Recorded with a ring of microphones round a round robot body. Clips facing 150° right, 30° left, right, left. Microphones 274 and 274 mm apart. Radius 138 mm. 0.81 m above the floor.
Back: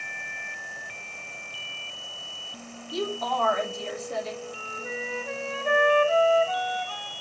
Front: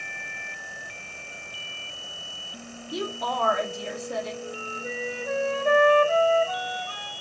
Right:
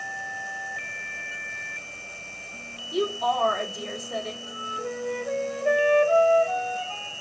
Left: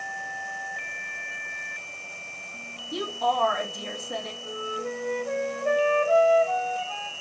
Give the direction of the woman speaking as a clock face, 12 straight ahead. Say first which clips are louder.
Back 1 dB, right 3 dB; 9 o'clock.